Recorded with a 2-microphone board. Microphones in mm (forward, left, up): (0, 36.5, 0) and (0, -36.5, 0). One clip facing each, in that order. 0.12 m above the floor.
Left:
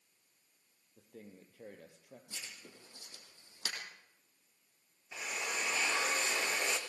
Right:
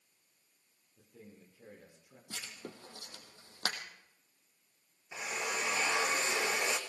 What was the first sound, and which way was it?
A man speaking, 65° left (ahead or behind).